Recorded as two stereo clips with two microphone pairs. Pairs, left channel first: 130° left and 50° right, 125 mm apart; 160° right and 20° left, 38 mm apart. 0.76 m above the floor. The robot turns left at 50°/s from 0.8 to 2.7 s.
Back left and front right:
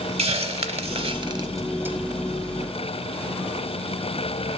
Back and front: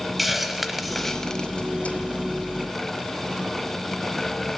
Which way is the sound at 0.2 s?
65° right.